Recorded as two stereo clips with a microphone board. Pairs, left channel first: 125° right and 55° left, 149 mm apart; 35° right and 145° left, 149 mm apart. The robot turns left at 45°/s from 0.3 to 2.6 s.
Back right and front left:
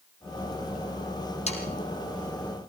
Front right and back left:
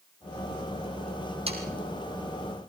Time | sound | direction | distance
1.5 | sawing | 165° right | 4 m